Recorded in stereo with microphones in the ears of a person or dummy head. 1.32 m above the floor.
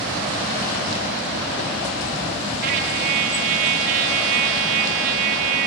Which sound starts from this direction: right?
A trumpet, at 2.6 s.